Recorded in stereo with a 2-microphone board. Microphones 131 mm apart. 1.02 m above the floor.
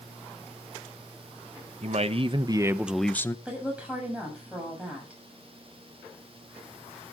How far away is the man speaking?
About 1.0 m.